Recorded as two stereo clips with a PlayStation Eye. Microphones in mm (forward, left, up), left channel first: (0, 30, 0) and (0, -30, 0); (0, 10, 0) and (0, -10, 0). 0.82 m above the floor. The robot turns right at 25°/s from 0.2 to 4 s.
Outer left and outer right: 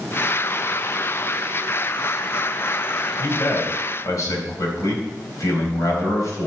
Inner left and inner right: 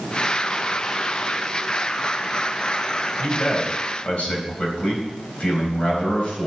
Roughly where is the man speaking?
Left.